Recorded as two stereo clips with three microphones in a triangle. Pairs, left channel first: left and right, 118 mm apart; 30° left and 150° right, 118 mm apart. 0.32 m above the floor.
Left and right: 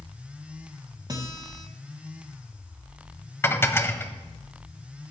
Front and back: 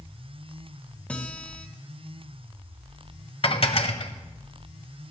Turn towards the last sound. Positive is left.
turn(degrees=25)